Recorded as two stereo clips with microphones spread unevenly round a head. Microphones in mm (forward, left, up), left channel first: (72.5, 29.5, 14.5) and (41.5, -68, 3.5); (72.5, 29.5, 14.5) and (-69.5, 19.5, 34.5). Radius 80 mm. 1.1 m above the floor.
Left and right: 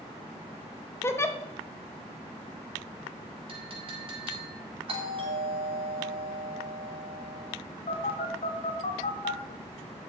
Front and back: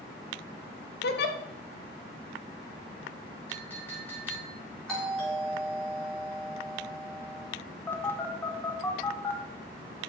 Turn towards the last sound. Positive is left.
turn(degrees=85)